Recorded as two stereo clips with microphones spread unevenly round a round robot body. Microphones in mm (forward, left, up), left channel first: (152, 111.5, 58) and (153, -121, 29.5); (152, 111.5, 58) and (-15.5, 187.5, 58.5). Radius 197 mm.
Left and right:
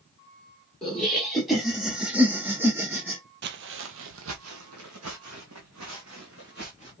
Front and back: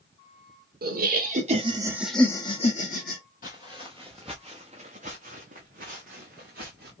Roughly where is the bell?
I don't hear a bell.